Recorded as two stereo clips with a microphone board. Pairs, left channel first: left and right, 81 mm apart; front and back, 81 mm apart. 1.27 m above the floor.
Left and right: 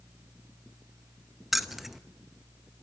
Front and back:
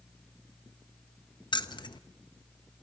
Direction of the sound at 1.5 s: 5° right.